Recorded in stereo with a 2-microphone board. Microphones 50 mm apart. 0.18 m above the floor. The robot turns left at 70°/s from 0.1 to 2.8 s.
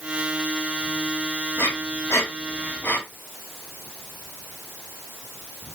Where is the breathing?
50° left (ahead or behind), 2.5 m; by 3.0 s 45° left (ahead or behind), 2.5 m.